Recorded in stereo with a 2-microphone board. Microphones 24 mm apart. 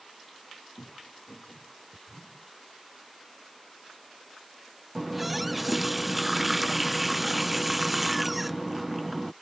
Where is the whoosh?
70° left (ahead or behind).